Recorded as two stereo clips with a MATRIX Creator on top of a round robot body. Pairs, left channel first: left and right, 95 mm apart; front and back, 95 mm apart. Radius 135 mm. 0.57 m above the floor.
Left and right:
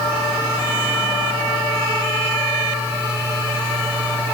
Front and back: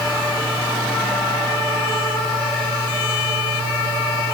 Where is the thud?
I don't hear a thud.